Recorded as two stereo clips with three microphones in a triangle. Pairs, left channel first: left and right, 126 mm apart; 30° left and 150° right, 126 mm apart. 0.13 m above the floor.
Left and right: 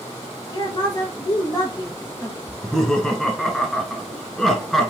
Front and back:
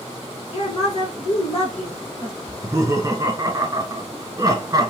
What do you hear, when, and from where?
0.5 s a woman speaking: 40° left, 2 m
2.5 s laughter: 175° left, 1.3 m